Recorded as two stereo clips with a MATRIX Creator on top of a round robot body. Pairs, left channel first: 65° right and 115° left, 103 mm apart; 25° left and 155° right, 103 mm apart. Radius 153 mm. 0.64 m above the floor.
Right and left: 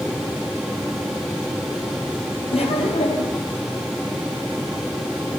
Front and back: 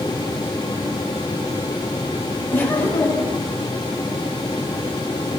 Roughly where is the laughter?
Ahead right.